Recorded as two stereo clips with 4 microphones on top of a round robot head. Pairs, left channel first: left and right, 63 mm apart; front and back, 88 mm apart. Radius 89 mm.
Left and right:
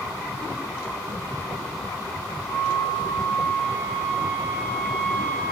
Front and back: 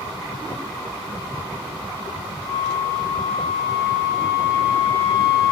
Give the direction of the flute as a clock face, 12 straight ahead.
11 o'clock.